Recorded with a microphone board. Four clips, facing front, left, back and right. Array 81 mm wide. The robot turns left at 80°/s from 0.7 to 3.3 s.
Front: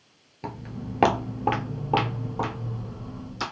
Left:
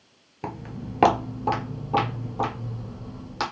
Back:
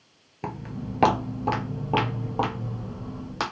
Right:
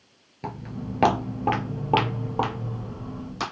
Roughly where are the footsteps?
Behind left.